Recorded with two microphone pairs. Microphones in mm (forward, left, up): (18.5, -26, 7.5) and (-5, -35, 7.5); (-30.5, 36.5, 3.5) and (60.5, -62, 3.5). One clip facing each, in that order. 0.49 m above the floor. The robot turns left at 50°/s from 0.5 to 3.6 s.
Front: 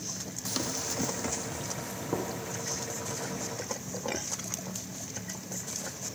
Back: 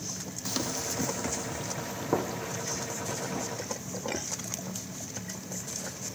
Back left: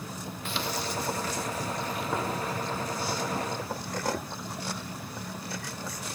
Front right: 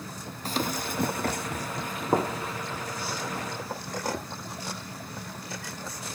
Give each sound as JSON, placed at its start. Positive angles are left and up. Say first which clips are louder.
{"t": 0.5, "sound": "running footsteps", "louder": "back 1 dB, front right 3 dB", "azimuth_deg": -85, "distance_m": 0.7}